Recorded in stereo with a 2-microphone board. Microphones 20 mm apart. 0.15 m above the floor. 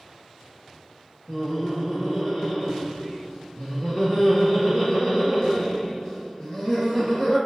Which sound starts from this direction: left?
Laughter, at 1.3 s.